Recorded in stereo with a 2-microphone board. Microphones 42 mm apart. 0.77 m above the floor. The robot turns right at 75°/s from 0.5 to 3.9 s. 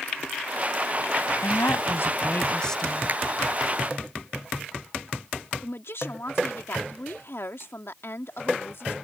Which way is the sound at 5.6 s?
70° left (ahead or behind).